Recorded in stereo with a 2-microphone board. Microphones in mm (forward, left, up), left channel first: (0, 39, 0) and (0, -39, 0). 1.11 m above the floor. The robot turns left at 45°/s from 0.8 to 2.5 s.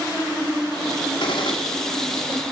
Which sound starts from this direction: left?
A gunshot, at 1.2 s.